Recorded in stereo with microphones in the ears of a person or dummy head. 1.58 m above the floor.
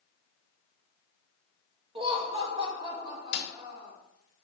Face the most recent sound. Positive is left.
turn(degrees=65)  # may be behind; listen again after turning